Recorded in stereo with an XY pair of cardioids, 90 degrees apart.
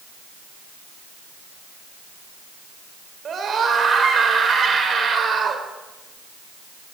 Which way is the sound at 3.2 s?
55° right.